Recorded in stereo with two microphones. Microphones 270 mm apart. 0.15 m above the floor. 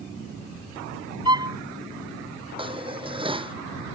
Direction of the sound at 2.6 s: 20° right (ahead or behind).